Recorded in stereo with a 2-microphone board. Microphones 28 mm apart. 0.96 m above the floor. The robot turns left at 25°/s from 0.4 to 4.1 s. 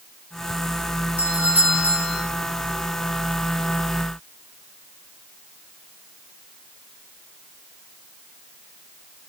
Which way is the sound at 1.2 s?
75° right (ahead or behind).